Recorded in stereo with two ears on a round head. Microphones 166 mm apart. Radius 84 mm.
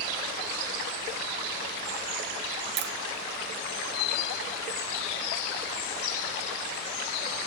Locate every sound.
2.8 s tapping: 55° right (ahead or behind), 1.1 m